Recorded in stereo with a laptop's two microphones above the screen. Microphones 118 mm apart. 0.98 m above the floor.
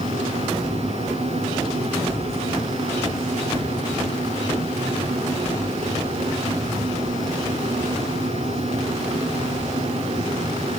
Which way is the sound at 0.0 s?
70° right (ahead or behind).